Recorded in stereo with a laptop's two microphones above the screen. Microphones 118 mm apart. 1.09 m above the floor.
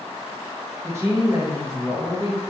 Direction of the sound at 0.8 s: 25° right (ahead or behind).